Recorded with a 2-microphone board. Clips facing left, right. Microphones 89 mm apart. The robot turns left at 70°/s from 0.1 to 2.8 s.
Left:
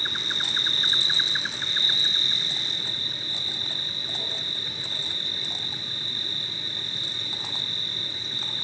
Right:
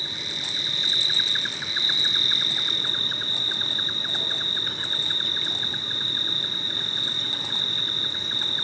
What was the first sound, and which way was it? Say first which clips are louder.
An insect: left 4 dB; 100° left.